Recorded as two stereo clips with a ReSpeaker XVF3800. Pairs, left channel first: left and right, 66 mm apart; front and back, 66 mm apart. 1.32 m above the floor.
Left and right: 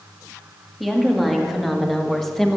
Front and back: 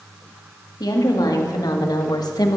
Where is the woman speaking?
Straight ahead, 2.5 m; by 2.6 s 5° left, 1.4 m.